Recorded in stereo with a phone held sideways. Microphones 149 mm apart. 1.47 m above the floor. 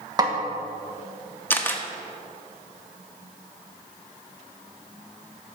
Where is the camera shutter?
15° left (ahead or behind), 0.9 m.